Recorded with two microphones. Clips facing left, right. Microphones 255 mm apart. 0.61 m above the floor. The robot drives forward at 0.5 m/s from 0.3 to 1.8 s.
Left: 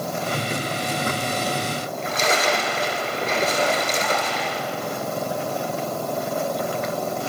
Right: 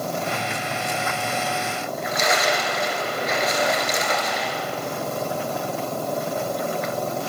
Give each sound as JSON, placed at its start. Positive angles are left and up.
{"t": 1.8, "sound": "a splash", "side_deg": 30, "distance_m": 2.0}